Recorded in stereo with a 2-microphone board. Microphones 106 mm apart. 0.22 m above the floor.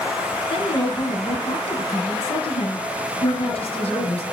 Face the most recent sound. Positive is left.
turn(degrees=65)  # may be behind; listen again after turning